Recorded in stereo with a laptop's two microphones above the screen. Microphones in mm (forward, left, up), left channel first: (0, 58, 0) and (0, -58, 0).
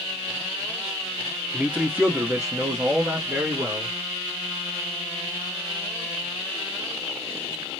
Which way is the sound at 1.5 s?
5° right (ahead or behind).